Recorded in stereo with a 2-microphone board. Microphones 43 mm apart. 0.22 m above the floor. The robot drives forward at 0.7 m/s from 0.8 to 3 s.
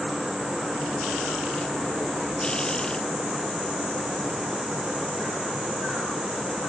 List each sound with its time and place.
Only background noise.